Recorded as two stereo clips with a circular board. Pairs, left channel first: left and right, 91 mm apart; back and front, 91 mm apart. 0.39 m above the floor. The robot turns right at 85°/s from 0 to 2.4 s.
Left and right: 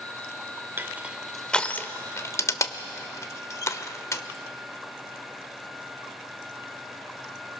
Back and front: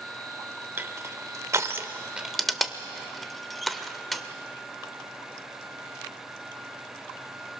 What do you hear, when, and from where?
0.8 s crushing: 45° right, 0.9 m; by 4.2 s 90° left, 0.9 m